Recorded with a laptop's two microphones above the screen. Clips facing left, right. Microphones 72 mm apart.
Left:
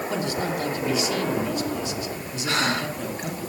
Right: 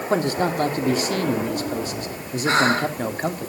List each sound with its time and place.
0.1 s a man speaking: 45° right (ahead or behind), 2.5 m
2.5 s breathing: 35° right (ahead or behind), 3 m